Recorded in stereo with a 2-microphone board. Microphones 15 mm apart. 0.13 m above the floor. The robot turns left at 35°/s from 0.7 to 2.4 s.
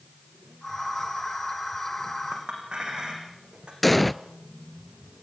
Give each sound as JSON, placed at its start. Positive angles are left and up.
{"t": 2.3, "sound": "a clink", "side_deg": -80, "distance_m": 5.5}
{"t": 3.8, "sound": "an explosion", "side_deg": 5, "distance_m": 0.6}